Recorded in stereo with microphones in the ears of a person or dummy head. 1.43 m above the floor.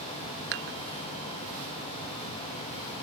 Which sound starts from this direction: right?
Dishes clattering, at 0.5 s.